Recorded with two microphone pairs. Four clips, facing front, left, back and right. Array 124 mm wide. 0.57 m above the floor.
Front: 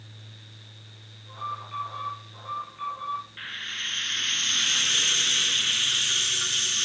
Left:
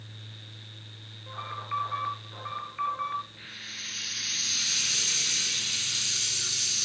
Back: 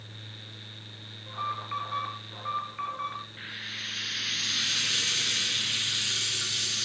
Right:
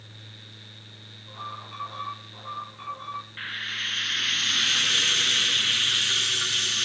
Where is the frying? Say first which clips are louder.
Right 10 dB, front 3 dB; 65° right, 1.8 m.